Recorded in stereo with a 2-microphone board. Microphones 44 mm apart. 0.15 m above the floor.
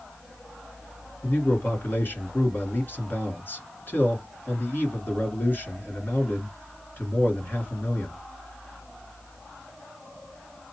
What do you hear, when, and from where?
1.2 s a man speaking: 45° left (ahead or behind), 1.6 m